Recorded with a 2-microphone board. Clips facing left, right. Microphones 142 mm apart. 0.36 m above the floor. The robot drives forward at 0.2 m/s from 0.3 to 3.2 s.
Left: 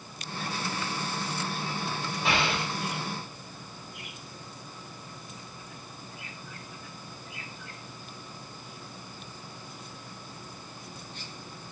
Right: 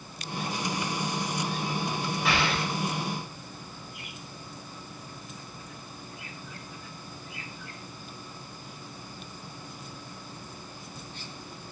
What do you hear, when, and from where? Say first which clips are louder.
2.2 s an explosion: even; 25° left (ahead or behind), 1.1 m